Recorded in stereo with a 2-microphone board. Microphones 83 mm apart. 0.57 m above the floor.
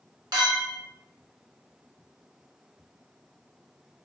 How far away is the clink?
About 1.1 m.